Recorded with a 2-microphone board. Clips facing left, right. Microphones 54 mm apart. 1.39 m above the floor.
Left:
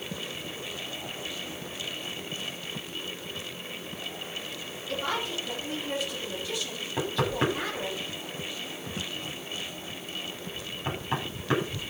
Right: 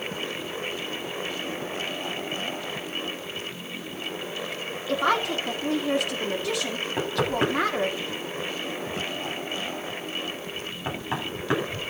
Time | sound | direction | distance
4.9 | a woman speaking | 75° right (ahead or behind) | 3.5 m
7.0 | knocking | 25° right (ahead or behind) | 10 m